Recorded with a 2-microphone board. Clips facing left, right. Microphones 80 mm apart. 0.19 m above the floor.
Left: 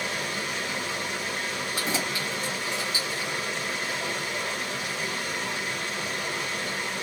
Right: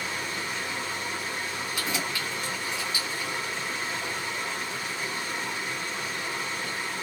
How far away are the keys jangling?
About 1.4 m.